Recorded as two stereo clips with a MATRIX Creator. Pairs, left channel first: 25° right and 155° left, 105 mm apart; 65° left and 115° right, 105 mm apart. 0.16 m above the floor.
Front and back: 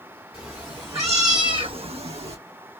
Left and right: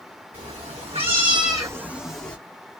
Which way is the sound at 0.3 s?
120° right.